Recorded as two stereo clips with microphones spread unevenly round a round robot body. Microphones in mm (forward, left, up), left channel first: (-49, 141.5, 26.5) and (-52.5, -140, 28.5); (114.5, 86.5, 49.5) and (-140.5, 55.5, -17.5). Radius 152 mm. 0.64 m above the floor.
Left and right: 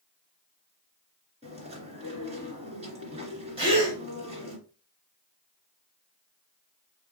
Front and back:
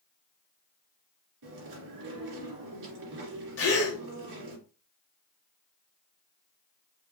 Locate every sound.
1.4 s chewing: 160° right, 2.5 m
3.6 s a gasp: 25° right, 1.6 m